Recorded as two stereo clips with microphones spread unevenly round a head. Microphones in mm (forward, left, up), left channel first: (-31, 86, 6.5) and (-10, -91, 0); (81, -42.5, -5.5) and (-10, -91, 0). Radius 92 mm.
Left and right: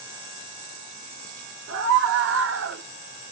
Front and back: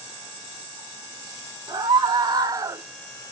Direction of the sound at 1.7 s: 105° right.